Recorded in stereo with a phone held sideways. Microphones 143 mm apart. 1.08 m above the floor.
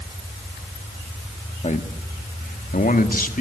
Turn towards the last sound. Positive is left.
turn(degrees=70)  # may be behind; listen again after turning